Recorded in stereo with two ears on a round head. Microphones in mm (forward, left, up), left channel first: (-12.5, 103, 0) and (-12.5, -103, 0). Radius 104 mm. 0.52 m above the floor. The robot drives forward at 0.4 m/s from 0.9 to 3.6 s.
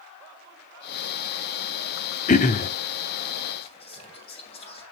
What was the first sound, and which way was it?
Throat clearing, 35° left (ahead or behind).